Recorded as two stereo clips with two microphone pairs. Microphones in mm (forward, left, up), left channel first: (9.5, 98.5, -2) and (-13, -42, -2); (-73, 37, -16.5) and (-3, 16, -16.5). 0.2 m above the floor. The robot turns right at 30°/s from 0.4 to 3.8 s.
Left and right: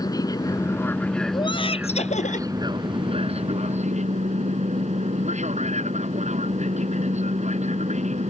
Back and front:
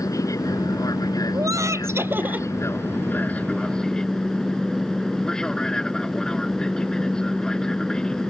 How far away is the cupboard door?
I don't hear a cupboard door.